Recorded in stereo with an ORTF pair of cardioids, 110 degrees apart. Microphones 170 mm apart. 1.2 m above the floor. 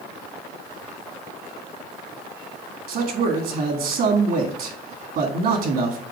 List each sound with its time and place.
2.9 s a man speaking: 55° right, 1.8 m